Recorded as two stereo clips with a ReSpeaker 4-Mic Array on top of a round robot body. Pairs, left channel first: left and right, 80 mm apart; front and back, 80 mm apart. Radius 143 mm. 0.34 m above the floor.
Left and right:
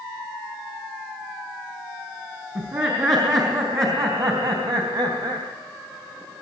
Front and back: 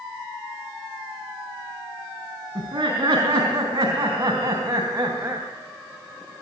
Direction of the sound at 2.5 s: 135° right.